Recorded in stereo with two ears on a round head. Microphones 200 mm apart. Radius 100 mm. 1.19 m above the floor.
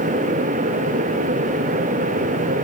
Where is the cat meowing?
No cat meowing in this recording.